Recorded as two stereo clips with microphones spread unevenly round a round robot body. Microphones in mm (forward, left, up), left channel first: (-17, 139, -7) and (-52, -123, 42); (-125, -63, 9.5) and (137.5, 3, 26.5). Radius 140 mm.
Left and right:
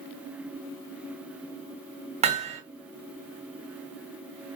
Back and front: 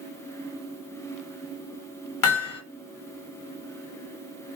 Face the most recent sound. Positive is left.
turn(degrees=-170)